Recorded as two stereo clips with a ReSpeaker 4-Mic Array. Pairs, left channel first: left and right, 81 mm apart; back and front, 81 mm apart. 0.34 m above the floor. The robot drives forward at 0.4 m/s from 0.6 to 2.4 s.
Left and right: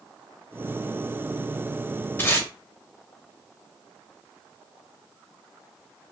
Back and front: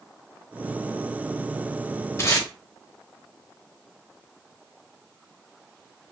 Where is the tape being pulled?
140° left, 0.7 m; by 2.5 s 145° left, 0.7 m.